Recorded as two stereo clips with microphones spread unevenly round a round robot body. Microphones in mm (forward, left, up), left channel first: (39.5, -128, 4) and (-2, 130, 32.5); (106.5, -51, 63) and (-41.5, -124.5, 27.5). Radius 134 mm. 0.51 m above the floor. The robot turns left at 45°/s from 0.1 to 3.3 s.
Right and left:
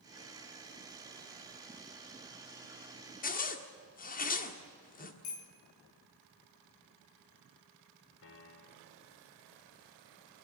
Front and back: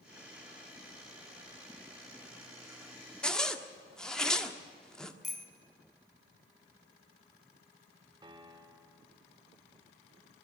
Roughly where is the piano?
Right.